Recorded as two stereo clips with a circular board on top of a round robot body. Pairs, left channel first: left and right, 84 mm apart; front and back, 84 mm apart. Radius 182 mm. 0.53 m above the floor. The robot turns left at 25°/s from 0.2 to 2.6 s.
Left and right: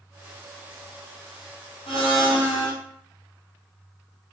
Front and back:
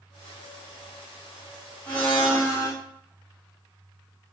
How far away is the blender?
About 0.9 m.